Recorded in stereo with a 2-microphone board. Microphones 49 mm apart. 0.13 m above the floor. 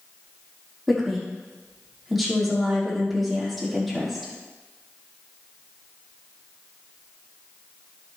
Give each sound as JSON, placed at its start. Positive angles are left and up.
{"t": 0.9, "sound": "a woman speaking", "side_deg": 0, "distance_m": 5.0}